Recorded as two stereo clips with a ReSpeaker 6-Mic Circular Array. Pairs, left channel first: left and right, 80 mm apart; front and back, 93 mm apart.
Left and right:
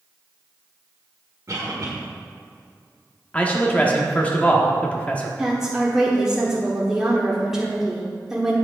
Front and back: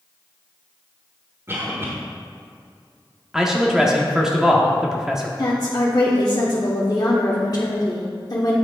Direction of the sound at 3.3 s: 105° left.